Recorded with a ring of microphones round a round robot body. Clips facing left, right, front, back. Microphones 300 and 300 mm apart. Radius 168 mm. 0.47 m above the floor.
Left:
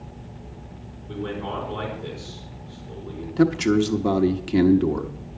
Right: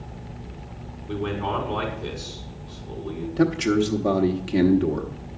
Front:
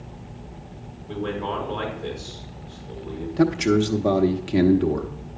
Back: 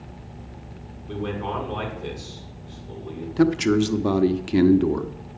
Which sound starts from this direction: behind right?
A man speaking, at 1.1 s.